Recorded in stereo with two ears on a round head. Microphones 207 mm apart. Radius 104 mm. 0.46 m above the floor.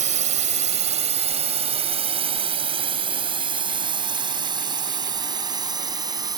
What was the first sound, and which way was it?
A drone, 35° right (ahead or behind).